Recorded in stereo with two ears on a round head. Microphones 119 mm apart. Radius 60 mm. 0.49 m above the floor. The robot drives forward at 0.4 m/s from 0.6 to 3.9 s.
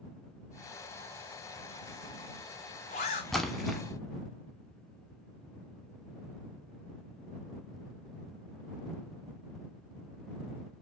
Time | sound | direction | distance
1.6 | a zipper | 80° left | 1.6 m
3.3 | a splash | 5° left (ahead or behind) | 0.8 m